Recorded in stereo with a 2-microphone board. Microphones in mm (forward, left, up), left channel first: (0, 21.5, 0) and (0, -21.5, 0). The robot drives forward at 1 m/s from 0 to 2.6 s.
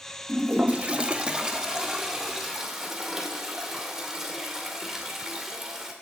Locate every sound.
0.3 s a toilet flushing: 30° right (ahead or behind), 0.7 m; by 5.9 s 10° right (ahead or behind), 2 m